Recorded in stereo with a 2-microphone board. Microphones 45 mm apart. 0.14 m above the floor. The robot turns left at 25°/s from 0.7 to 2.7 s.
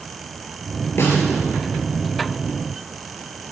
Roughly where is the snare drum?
Left.